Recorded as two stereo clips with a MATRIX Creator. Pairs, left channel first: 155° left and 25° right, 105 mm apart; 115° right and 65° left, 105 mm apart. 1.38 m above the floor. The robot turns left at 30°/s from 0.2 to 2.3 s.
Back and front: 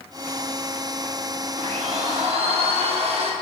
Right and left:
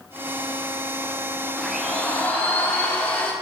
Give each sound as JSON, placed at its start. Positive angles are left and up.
{"t": 1.6, "sound": "a blender", "azimuth_deg": -15, "distance_m": 1.5}